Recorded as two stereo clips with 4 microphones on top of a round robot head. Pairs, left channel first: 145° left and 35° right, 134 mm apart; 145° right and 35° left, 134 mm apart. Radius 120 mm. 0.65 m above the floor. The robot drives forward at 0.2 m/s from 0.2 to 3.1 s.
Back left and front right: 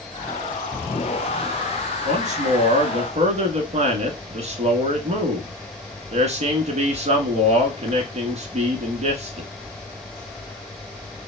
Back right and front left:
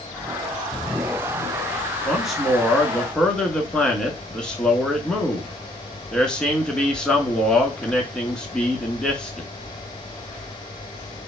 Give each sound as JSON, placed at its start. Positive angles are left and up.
{"t": 2.0, "sound": "a man speaking", "azimuth_deg": -50, "distance_m": 1.1}